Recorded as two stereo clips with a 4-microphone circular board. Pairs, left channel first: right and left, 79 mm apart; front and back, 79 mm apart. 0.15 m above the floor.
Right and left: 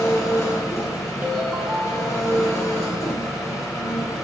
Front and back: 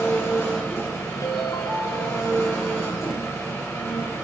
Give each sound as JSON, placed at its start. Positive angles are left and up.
{"t": 0.0, "sound": "an engine running", "azimuth_deg": -50, "distance_m": 2.0}
{"t": 1.2, "sound": "a ringtone", "azimuth_deg": 20, "distance_m": 1.3}